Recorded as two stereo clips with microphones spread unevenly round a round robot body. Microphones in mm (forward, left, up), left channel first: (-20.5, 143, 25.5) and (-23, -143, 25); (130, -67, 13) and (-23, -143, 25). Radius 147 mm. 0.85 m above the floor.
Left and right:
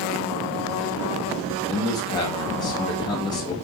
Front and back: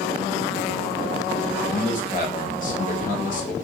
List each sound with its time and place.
1.6 s a man speaking: 15° left, 1.4 m